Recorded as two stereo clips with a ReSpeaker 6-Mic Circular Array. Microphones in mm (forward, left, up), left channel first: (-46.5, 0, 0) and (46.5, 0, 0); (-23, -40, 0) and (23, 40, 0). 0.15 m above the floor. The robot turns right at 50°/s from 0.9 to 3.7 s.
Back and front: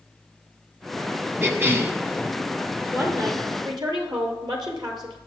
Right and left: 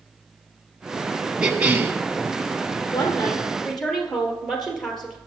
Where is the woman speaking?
70° right, 3 m; by 5.2 s 30° right, 3 m.